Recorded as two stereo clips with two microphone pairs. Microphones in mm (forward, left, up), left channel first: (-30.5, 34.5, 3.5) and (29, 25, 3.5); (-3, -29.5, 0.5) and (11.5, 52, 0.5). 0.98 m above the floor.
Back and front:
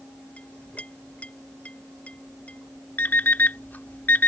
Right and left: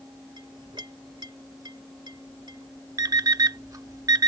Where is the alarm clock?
115° left.